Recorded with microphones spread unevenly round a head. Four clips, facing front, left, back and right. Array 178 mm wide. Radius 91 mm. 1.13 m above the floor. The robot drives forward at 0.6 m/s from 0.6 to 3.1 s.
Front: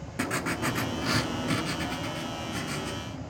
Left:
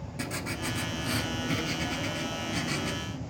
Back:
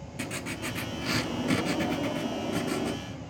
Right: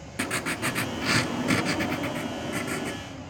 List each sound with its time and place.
0.2 s writing: 30° right, 0.8 m; by 3.0 s 160° right, 1.1 m